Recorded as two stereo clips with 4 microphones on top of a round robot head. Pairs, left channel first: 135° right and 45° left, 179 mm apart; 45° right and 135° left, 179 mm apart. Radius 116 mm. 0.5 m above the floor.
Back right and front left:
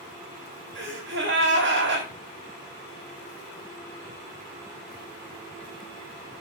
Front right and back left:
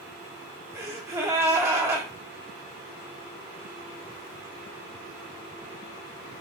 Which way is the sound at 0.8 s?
60° left.